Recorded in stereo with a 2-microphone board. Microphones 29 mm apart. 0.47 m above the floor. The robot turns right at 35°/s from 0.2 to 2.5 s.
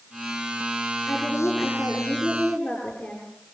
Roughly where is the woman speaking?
Left.